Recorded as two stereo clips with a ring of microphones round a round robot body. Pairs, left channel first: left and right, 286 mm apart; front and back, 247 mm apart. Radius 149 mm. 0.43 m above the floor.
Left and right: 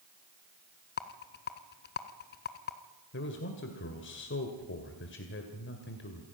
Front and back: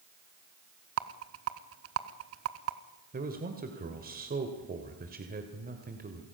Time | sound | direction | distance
1.0 | a rattle | 145° left | 0.9 m
3.1 | a man speaking | 135° left | 2 m